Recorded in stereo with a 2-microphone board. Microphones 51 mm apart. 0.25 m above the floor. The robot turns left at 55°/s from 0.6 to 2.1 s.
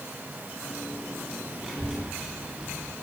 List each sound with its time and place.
1.6 s a child speaking: centre (ahead or behind), 1.5 m; by 3.0 s 25° right (ahead or behind), 1.5 m